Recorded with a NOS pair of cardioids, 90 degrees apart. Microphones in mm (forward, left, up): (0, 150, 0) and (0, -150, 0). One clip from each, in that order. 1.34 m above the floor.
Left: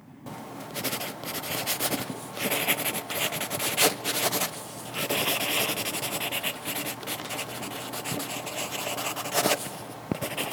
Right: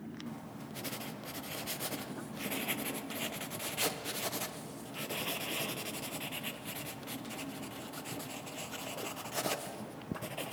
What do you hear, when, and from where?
0.3 s writing: 50° left, 0.6 m